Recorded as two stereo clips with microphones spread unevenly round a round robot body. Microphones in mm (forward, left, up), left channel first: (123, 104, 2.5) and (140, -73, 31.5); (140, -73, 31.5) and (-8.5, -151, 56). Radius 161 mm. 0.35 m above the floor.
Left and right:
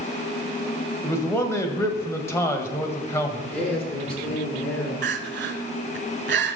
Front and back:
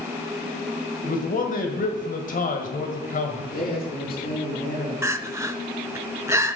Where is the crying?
80° right, 0.7 m.